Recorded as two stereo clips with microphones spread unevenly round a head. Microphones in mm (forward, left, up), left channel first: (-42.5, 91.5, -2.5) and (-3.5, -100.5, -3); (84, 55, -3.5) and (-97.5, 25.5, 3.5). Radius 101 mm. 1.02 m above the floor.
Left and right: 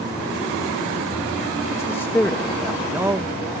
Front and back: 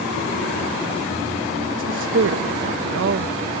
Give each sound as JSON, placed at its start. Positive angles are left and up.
{"t": 1.7, "sound": "a man speaking", "azimuth_deg": 175}